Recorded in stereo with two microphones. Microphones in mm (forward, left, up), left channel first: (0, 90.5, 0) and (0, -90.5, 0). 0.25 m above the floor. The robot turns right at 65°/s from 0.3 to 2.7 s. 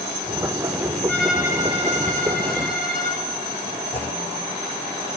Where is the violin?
170° left, 3.5 m; by 3.2 s 85° right, 3.5 m.